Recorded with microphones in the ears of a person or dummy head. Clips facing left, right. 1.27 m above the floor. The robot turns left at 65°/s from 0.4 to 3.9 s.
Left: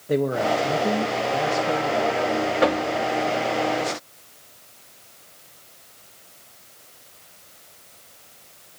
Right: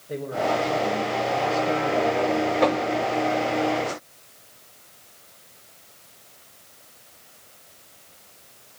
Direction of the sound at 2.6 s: 10° left (ahead or behind).